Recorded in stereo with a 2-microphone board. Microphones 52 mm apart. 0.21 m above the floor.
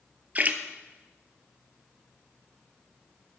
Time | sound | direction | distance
0.3 | a splash | 35° right (ahead or behind) | 0.9 m